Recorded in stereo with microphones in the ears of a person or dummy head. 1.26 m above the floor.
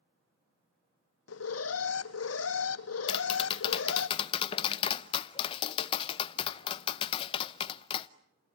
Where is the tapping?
30° left (ahead or behind), 0.8 m.